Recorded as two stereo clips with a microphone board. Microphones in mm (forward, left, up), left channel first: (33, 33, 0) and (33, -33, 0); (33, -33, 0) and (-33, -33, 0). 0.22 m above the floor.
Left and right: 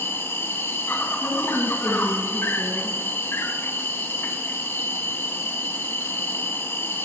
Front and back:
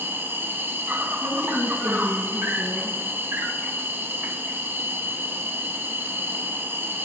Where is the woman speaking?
155° right, 2.5 m.